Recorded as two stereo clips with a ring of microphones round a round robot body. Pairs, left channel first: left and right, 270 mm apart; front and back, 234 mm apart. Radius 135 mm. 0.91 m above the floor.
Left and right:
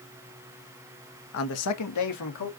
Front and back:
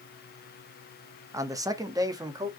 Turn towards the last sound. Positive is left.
turn(degrees=105)